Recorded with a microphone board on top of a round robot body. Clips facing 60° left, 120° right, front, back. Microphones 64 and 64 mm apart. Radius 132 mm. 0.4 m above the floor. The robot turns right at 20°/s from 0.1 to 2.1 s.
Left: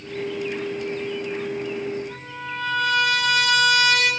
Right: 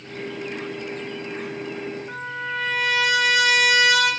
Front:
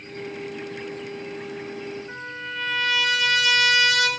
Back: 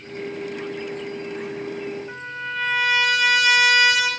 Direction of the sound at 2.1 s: 105° right.